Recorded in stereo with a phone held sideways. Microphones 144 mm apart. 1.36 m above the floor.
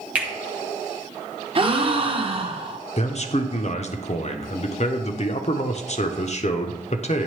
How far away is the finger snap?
About 1.2 m.